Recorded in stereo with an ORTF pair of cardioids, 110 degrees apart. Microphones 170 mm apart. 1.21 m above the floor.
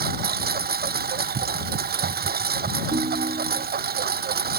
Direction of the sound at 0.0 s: 65° right.